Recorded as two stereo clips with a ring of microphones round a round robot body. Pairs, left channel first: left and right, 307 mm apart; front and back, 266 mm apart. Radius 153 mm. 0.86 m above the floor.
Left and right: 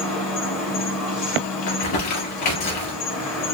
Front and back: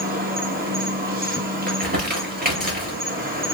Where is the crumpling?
125° left, 2.5 m.